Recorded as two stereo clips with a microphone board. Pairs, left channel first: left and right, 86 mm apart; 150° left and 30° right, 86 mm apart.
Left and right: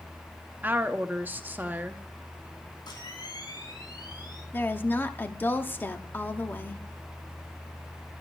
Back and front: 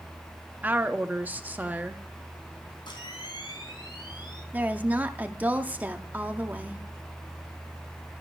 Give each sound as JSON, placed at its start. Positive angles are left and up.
{"t": 0.6, "sound": "a woman speaking", "azimuth_deg": -65, "distance_m": 0.8}
{"t": 2.9, "sound": "a camera shutter", "azimuth_deg": 125, "distance_m": 3.0}
{"t": 4.5, "sound": "a woman speaking", "azimuth_deg": 35, "distance_m": 0.9}